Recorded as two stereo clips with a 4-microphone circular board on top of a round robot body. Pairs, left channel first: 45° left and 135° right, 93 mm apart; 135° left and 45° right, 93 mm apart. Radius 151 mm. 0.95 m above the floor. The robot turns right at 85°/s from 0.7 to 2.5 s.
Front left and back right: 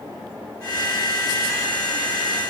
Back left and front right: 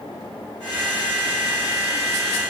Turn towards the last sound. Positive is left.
No sound to turn to.